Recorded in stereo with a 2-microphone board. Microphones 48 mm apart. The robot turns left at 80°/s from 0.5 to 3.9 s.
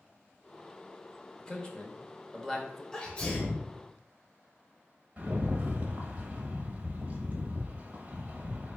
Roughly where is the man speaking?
Centre.